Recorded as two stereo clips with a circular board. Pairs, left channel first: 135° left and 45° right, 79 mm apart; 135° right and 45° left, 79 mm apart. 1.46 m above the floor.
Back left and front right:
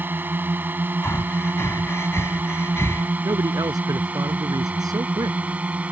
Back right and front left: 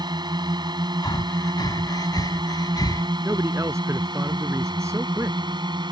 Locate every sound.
0.0 s a drone: 20° left; by 5.9 s 25° left
1.0 s breathing: 170° right
3.2 s a man speaking: 10° right